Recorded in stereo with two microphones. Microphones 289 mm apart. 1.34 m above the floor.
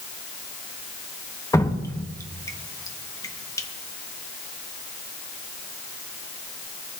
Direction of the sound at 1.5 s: 10° left (ahead or behind).